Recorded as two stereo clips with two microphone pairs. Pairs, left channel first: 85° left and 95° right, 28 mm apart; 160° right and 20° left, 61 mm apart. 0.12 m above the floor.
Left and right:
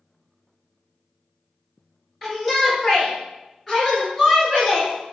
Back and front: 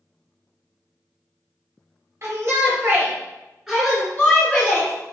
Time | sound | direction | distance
2.2 | a shout | 10° right | 1.9 m